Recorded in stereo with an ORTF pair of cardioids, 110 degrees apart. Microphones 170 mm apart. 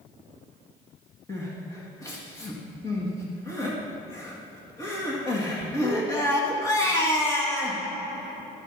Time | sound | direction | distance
1.3 | crying | 20° left | 1.9 m